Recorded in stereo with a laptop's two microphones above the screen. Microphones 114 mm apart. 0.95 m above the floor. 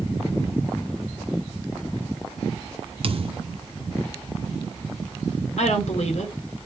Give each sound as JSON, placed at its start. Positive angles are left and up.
{"t": 3.0, "sound": "a thud", "side_deg": -55, "distance_m": 0.5}
{"t": 5.6, "sound": "a woman speaking", "side_deg": 75, "distance_m": 2.5}